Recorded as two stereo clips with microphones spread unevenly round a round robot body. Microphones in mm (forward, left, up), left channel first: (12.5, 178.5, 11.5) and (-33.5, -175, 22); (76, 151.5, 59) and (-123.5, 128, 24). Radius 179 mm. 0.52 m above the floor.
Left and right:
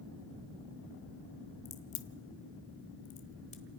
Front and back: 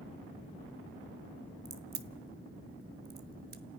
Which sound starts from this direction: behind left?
A crack, at 1.6 s.